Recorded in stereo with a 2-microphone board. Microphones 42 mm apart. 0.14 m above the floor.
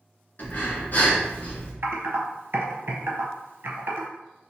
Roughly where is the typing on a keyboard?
Right.